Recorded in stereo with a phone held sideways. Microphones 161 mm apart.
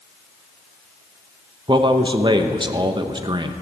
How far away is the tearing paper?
I don't hear tearing paper.